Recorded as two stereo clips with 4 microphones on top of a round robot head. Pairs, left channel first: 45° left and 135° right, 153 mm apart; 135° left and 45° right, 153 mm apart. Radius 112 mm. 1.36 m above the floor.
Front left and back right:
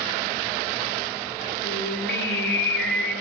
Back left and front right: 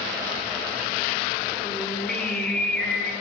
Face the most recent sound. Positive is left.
turn(degrees=50)